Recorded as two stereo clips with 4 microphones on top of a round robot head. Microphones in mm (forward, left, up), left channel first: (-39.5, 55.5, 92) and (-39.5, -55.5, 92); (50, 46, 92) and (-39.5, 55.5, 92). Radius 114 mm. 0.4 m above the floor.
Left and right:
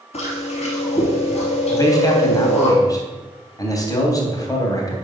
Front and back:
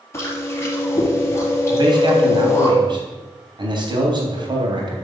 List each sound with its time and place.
0.1 s chewing: 55° left, 3.5 m
1.7 s a man speaking: 145° left, 3 m